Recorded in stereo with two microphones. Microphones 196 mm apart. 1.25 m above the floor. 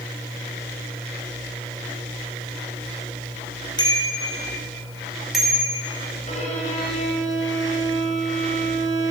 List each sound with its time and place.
3.8 s a bicycle bell: 20° left (ahead or behind), 5 m; by 5.8 s 5° right (ahead or behind), 6.5 m
6.3 s a violin: 35° left (ahead or behind), 6.5 m